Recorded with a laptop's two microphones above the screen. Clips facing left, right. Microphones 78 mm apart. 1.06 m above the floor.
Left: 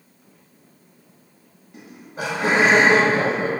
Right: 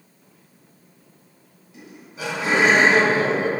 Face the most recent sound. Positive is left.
turn(degrees=50)  # may be behind; listen again after turning